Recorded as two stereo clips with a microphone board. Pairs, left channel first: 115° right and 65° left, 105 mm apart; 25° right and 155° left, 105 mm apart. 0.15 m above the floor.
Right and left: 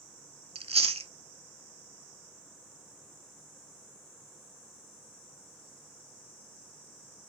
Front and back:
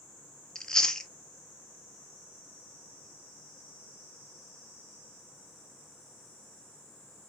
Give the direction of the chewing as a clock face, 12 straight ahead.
10 o'clock.